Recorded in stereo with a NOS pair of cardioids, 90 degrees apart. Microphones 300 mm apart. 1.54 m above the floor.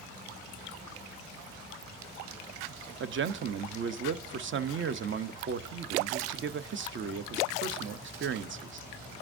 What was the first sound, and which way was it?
A man speaking, 40° right.